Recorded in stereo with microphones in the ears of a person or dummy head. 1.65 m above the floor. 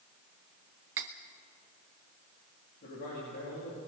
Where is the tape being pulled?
No tape being pulled in this recording.